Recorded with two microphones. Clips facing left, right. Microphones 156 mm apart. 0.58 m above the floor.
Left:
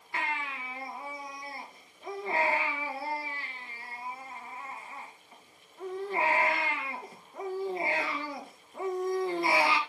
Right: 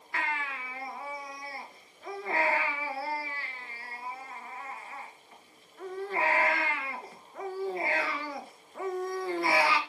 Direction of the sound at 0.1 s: 20° left (ahead or behind).